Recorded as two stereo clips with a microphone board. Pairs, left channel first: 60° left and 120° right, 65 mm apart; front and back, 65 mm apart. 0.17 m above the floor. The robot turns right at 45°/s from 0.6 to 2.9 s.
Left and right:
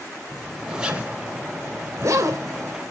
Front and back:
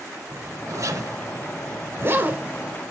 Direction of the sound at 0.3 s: 150° left.